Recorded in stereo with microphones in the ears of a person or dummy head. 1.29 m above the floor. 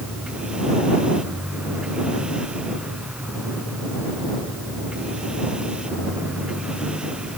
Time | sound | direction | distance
0.0 | a machine running | 5° right (ahead or behind) | ?